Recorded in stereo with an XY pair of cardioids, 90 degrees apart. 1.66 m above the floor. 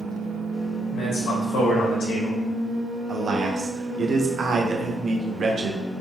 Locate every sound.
0.9 s a man speaking: 70° left, 1.4 m
3.1 s a man speaking: 50° right, 0.8 m